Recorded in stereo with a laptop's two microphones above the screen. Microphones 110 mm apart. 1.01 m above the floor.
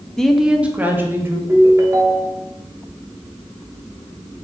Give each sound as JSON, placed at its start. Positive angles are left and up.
{"t": 0.2, "sound": "a woman speaking", "side_deg": 5, "distance_m": 0.9}
{"t": 1.5, "sound": "a ringtone", "side_deg": -30, "distance_m": 0.8}